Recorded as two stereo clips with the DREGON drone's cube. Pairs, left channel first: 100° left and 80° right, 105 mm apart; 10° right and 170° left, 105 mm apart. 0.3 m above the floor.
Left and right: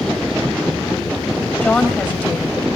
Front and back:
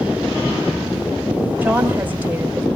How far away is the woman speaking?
About 1.4 m.